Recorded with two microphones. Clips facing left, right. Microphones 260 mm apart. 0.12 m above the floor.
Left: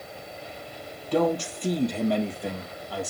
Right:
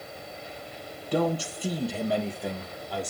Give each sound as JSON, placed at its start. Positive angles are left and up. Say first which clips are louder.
{"t": 1.1, "sound": "a man speaking", "louder": "left 3 dB", "side_deg": -10, "distance_m": 3.5}